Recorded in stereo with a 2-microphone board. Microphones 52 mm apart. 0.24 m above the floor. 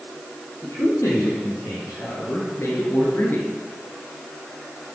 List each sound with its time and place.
0.6 s a man speaking: 80° left, 5 m; by 3.5 s 40° left (ahead or behind), 3 m